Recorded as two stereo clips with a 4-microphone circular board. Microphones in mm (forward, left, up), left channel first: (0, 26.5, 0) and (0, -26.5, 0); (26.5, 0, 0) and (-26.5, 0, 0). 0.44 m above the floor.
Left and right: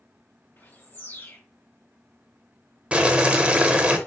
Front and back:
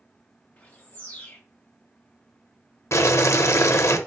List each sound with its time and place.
0.6 s a bird: 55° left, 1.3 m
2.9 s boiling: 20° right, 0.6 m